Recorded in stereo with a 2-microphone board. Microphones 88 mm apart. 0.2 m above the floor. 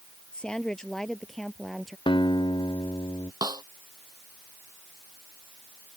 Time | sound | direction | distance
0.3 | a woman speaking | 10° left (ahead or behind) | ?
2.1 | a guitar | 85° left | ?
3.4 | a snare drum | 55° right (ahead or behind) | ?